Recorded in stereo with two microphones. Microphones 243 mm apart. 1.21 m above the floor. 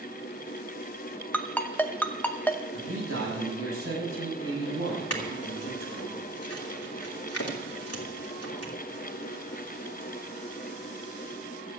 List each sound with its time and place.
1.3 s a ringtone: 5° left (ahead or behind), 0.8 m
2.7 s a man speaking: 65° right (ahead or behind), 6.5 m
5.1 s a clink: 85° left, 2.5 m